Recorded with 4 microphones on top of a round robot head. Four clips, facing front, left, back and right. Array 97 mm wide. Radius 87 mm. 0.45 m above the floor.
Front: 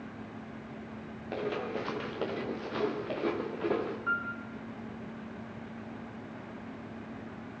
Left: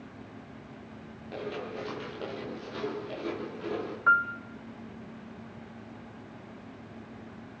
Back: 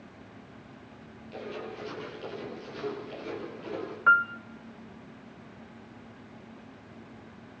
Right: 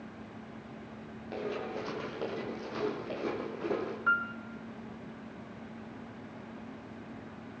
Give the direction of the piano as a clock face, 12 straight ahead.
7 o'clock.